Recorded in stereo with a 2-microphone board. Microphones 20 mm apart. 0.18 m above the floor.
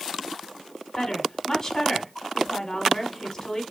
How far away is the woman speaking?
About 1.1 m.